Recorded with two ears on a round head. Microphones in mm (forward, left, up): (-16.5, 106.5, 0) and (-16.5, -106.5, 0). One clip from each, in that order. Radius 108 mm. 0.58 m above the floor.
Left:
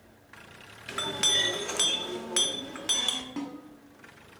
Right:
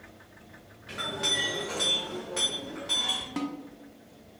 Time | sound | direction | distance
0.9 | a clink | 70° left (ahead or behind) | 0.7 m
3.4 | a snare drum | 20° right (ahead or behind) | 0.7 m